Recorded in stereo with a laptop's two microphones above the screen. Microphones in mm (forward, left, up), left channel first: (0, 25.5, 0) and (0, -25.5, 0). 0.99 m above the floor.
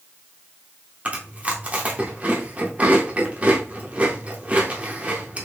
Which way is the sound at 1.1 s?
30° right (ahead or behind).